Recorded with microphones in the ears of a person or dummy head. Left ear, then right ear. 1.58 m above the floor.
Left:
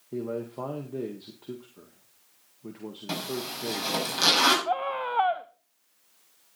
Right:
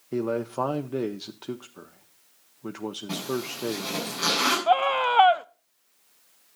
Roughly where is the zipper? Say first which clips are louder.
Even; left.